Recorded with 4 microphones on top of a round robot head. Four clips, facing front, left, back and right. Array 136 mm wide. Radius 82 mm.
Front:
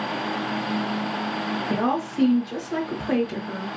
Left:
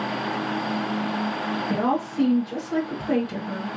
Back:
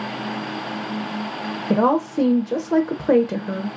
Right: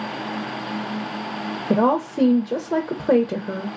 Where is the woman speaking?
135° right, 0.6 m.